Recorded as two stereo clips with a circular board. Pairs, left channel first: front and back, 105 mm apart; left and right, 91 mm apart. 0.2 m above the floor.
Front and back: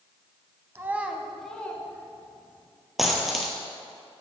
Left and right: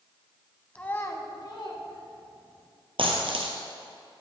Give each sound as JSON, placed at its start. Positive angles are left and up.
{"t": 0.8, "sound": "a child speaking", "azimuth_deg": 150, "distance_m": 0.6}
{"t": 3.0, "sound": "a dropped coin", "azimuth_deg": -90, "distance_m": 1.0}